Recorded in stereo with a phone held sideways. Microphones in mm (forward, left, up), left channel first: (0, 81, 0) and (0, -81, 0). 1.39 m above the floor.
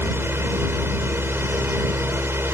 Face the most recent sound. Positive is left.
turn(degrees=-15)  # may be behind; listen again after turning